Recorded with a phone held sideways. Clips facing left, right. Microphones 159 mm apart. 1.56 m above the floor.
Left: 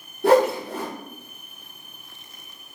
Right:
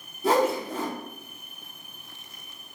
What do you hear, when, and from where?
0.2 s a whoosh: 75° left (ahead or behind), 0.7 m